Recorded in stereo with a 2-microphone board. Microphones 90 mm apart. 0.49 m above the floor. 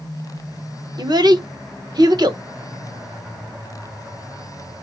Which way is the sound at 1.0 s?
50° right (ahead or behind).